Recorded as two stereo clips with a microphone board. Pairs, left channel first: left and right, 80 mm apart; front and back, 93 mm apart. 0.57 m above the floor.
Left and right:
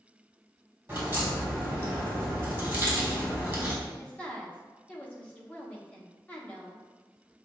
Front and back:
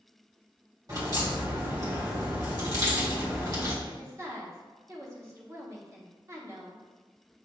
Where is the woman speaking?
150° left, 0.9 m.